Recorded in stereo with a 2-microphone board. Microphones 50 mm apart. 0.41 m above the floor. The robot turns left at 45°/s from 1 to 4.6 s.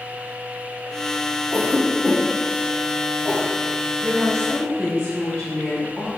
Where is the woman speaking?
Centre (ahead or behind), 1.1 m; by 6.1 s 15° left (ahead or behind), 1.1 m.